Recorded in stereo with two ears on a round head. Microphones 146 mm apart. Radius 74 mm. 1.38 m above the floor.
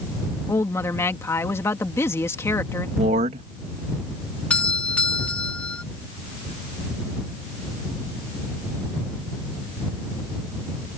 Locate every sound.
0.5 s a woman speaking: 15° left (ahead or behind)
3.0 s a man speaking: 45° right (ahead or behind)
4.5 s a doorbell: 10° left (ahead or behind)